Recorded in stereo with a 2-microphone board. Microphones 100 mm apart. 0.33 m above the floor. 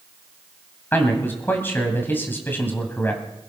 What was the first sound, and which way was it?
A man speaking, 20° left (ahead or behind).